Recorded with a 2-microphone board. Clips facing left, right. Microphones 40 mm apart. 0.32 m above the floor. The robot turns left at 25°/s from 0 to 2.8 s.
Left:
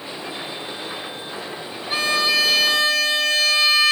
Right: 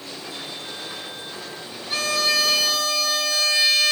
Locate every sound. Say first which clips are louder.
1.9 s a violin: left 3 dB; 25° left (ahead or behind), 1.1 m; by 3.9 s 50° left (ahead or behind), 1.1 m